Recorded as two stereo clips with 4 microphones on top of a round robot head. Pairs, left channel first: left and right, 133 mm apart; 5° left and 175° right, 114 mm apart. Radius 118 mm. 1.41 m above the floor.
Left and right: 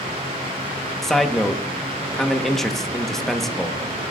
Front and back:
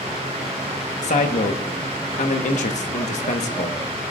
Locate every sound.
1.0 s a man speaking: 5° left, 1.3 m